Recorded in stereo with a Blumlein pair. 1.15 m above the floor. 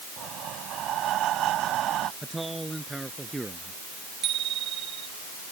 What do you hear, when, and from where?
0.2 s breathing: 30° right
2.2 s a man speaking: 5° right
4.2 s a bicycle bell: 30° right